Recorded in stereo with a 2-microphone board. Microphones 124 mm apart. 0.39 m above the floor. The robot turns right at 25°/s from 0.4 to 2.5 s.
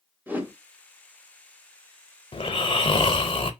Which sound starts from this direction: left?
Snoring, at 2.3 s.